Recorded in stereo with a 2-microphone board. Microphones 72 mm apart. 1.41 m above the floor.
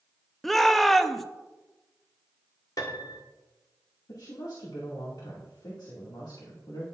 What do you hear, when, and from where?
0.4 s a shout: centre (ahead or behind), 0.7 m
2.8 s a piano: 55° left (ahead or behind), 1.5 m
4.1 s a woman speaking: 70° left (ahead or behind), 2 m